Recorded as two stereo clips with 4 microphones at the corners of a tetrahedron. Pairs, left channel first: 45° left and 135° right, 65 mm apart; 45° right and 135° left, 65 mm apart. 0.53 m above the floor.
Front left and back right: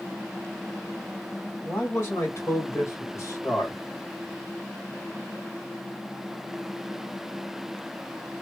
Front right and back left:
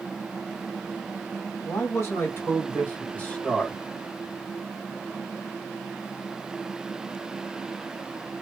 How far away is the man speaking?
About 2 m.